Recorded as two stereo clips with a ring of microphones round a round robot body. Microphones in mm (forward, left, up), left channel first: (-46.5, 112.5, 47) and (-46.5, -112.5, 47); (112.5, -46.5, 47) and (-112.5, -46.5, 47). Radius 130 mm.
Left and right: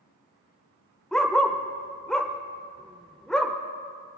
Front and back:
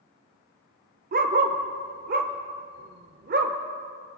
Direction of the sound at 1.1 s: 175° left.